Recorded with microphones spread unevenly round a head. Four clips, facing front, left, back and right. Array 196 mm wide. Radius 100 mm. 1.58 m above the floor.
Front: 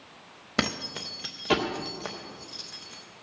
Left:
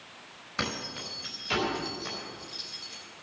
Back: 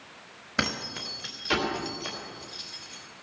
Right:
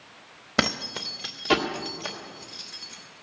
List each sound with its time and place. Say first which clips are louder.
0.6 s keys jangling: right 7 dB, front 1 dB; 65° right, 1.6 m; by 3.0 s 5° right, 1.5 m